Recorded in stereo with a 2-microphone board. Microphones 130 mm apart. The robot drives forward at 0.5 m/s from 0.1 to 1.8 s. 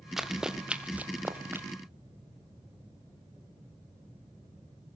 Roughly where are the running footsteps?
Centre.